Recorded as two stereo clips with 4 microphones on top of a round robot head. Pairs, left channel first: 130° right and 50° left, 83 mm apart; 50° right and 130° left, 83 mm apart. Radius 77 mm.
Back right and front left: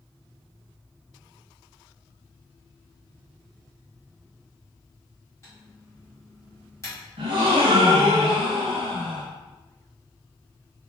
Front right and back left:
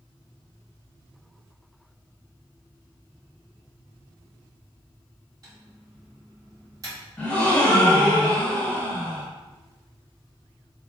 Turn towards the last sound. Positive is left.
turn(degrees=25)